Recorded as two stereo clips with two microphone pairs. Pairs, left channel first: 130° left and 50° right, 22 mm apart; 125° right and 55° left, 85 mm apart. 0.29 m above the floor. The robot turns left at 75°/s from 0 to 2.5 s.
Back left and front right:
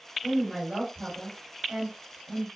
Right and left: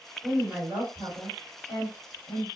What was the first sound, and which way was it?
A woman speaking, 15° left.